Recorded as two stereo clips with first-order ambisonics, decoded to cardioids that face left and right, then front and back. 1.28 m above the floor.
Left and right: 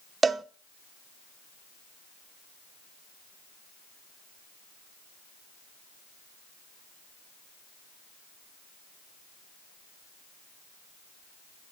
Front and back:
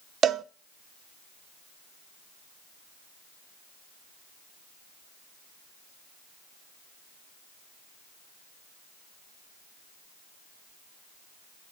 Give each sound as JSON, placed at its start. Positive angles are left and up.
{"t": 0.2, "sound": "a cowbell", "azimuth_deg": -150, "distance_m": 0.5}